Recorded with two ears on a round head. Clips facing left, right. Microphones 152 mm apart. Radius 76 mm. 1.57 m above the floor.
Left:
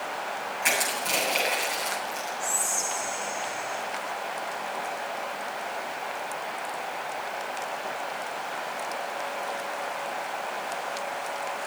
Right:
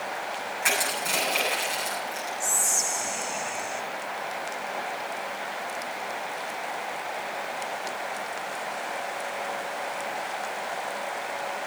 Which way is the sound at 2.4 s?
70° right (ahead or behind).